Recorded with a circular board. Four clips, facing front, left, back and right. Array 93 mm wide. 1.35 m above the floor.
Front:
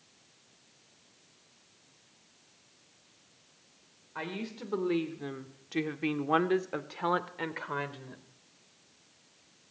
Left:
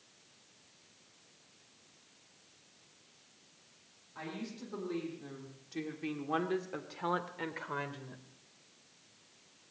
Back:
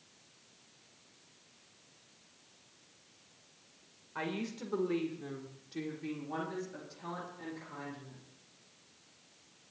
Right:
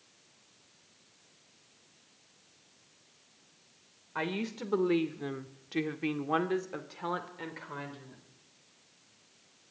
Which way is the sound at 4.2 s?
85° right.